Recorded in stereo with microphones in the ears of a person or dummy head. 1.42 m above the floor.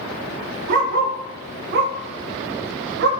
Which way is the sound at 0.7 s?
65° right (ahead or behind).